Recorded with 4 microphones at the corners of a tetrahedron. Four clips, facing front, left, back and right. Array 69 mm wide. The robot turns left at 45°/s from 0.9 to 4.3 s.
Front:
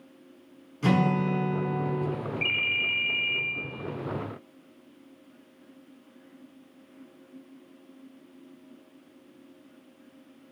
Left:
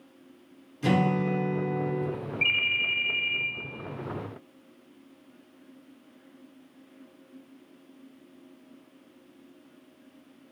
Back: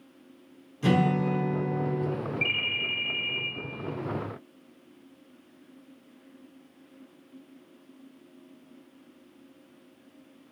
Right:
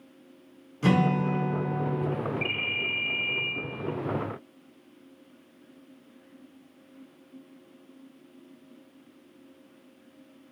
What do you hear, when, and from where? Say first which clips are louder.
0.8 s a guitar: right 1 dB, even; 50° right, 1.3 m; by 2.1 s 105° right, 1.3 m
2.4 s a ringtone: left 4 dB, front 3 dB; 110° left, 0.6 m; by 3.5 s 60° left, 0.6 m